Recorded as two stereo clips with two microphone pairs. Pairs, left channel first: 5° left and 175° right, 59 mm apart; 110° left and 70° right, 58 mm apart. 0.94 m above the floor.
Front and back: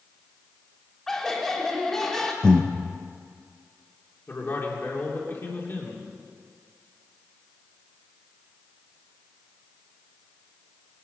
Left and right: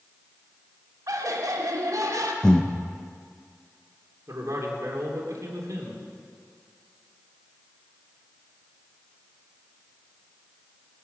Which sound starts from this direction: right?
Laughter, at 1.1 s.